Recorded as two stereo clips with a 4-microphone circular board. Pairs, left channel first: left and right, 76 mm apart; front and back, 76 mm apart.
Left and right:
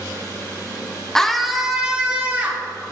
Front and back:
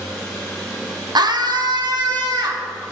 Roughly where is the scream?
Behind.